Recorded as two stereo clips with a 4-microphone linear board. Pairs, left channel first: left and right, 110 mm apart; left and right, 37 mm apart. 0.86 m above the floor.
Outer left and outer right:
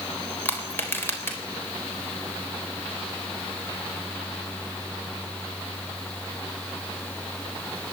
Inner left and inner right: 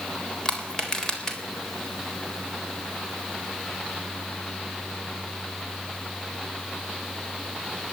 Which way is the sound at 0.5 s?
20° left (ahead or behind).